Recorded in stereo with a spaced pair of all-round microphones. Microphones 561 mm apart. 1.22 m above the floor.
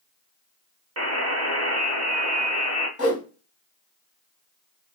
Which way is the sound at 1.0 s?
25° right (ahead or behind).